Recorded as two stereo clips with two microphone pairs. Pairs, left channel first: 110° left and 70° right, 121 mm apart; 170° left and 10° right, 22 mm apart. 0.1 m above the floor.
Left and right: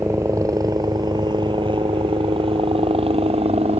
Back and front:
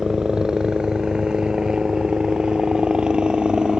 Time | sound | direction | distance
0.0 | a helicopter | 25° right | ?